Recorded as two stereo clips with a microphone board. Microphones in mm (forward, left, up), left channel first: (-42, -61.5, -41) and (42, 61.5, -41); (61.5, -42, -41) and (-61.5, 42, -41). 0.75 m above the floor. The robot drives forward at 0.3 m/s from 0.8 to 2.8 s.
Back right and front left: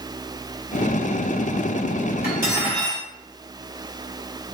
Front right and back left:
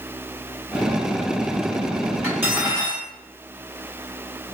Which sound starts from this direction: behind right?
Cutlery clinking, at 2.2 s.